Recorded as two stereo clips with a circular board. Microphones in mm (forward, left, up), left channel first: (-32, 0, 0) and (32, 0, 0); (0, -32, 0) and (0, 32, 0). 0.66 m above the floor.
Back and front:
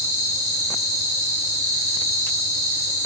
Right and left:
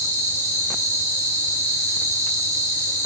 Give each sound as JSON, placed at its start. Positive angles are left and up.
{"t": 0.0, "sound": "an insect", "azimuth_deg": 95, "distance_m": 1.2}